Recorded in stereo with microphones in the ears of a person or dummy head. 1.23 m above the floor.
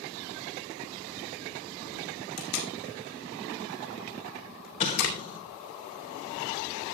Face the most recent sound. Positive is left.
turn(degrees=30)  # may be behind; listen again after turning